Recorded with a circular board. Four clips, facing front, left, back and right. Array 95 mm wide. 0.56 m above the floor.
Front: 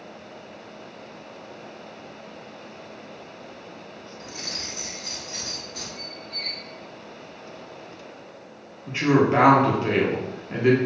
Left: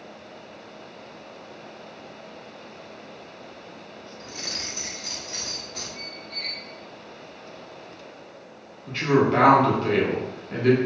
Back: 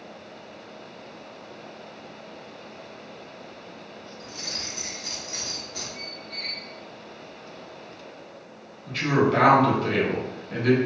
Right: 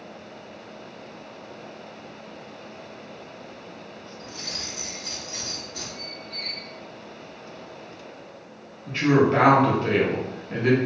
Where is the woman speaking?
20° right, 1.0 m.